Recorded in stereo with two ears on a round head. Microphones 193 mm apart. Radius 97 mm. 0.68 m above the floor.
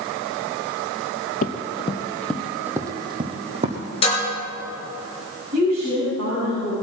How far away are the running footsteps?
About 1.2 m.